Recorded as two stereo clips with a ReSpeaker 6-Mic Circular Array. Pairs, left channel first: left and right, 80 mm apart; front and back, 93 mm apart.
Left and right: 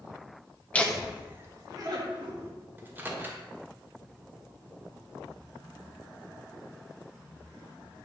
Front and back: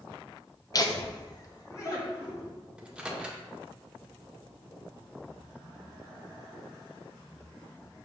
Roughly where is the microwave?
Behind right.